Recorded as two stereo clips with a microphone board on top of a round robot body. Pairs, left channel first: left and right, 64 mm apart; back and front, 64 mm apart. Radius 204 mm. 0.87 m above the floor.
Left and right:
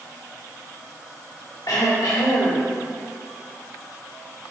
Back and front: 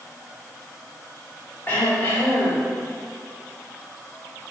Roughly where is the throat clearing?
Behind left.